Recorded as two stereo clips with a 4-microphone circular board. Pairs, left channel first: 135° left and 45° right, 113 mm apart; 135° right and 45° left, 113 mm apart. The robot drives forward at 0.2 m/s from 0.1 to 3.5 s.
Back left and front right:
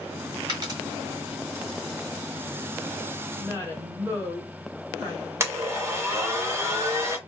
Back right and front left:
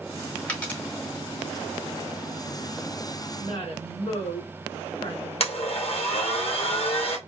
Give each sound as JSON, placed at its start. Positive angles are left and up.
{"t": 0.5, "sound": "a dropped coin", "azimuth_deg": -65, "distance_m": 1.6}
{"t": 3.4, "sound": "a woman speaking", "azimuth_deg": -100, "distance_m": 2.5}
{"t": 5.4, "sound": "a blender", "azimuth_deg": -110, "distance_m": 1.2}